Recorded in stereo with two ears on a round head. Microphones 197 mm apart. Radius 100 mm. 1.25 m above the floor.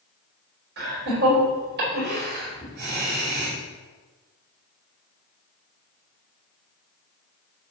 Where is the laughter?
45° right (ahead or behind), 5 m.